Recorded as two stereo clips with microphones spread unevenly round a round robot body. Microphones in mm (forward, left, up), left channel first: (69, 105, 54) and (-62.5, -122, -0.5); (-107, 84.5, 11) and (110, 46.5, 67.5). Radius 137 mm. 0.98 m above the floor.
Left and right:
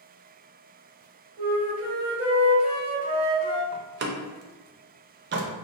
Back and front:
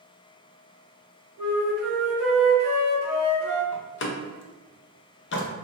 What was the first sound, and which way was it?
A flute, 50° right.